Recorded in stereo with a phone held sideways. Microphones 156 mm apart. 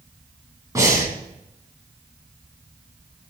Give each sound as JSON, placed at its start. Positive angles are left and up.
{"t": 0.8, "sound": "breathing", "side_deg": -20, "distance_m": 2.5}